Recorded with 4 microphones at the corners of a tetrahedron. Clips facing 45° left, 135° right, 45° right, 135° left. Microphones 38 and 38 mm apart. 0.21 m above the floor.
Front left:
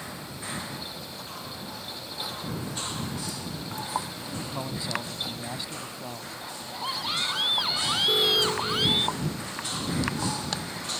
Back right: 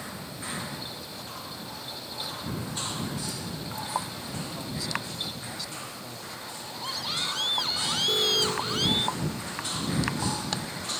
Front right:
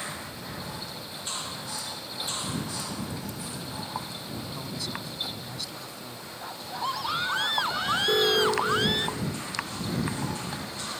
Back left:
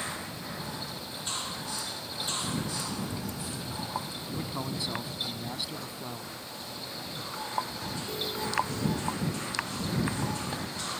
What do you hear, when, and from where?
4.3 s a man speaking: 80° left
6.4 s a scream: 30° right
8.1 s an alarm: 35° right